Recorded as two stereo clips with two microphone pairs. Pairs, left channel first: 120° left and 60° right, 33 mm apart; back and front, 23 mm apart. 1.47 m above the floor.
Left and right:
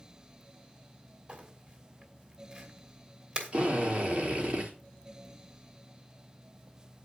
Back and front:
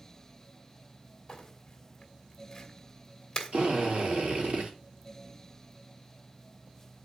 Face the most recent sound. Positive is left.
turn(degrees=0)